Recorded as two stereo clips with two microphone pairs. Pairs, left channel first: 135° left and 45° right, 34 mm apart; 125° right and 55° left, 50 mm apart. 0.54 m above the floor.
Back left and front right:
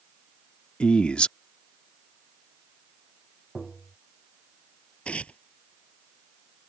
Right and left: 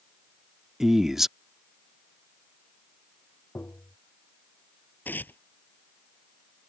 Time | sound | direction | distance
0.8 | a man speaking | 130° left | ?
3.5 | tapping | 140° right | ?
5.0 | tearing paper | 170° right | ?